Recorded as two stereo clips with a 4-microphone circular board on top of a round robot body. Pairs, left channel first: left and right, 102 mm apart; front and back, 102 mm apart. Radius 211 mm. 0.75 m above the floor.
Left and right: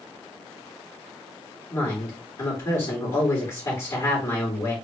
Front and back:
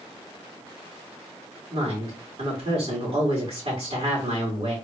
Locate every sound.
1.7 s a woman speaking: 150° left, 2.5 m